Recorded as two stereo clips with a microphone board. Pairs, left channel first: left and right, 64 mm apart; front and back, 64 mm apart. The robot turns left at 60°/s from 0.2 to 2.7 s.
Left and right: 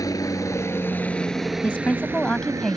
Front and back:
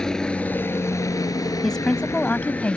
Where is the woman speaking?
75° left; by 2.8 s 10° left.